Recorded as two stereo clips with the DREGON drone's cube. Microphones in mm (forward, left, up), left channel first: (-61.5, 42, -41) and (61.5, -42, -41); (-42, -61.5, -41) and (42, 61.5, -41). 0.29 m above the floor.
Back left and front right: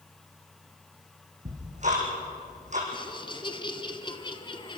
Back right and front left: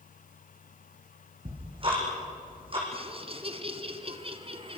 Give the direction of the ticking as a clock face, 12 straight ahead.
12 o'clock.